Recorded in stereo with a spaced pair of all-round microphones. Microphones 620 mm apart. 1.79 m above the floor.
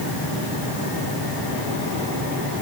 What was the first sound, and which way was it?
Only background noise.